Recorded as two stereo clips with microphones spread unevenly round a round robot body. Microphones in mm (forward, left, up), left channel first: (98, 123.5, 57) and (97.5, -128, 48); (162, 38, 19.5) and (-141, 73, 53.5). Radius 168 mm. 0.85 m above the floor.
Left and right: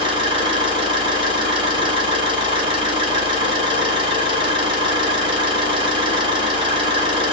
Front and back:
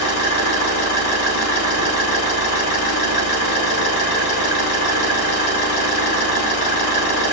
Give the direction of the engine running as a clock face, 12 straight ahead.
1 o'clock.